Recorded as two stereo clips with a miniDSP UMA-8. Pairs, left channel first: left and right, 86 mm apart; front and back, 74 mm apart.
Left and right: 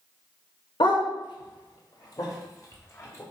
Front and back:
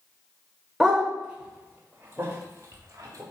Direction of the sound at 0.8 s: 100° left.